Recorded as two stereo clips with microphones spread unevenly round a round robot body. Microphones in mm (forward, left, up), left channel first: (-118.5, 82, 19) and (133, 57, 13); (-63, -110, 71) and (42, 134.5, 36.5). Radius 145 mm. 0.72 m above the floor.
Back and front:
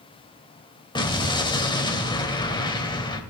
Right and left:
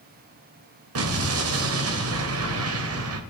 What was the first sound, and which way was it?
An explosion, 100° left.